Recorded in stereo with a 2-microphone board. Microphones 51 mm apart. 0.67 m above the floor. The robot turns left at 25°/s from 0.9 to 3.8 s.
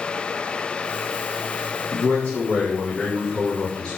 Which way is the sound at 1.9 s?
70° left.